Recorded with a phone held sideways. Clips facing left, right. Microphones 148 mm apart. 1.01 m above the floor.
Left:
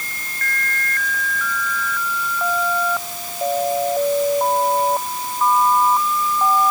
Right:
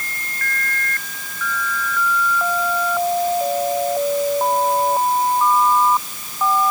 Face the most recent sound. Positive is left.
No sound to turn to.